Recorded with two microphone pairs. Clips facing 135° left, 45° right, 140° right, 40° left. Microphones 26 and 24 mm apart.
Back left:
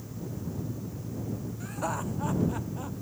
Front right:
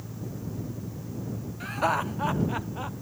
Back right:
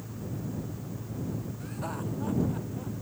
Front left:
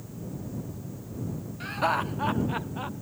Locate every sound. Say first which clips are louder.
1.6 s laughter: front right 8 dB, front left 14 dB; straight ahead; by 3.0 s 10° left